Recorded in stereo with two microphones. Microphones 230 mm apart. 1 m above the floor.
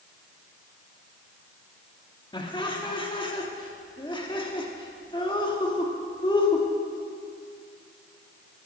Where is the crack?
I don't hear a crack.